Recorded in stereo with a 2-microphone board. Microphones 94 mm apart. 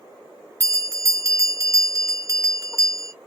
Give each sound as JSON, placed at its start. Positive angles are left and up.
{"t": 0.6, "sound": "a bell", "side_deg": -35, "distance_m": 1.2}